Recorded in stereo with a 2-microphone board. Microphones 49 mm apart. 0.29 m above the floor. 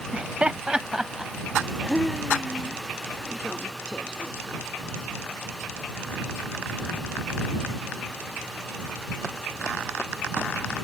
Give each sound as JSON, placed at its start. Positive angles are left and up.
{"t": 0.1, "sound": "laughter", "side_deg": -25}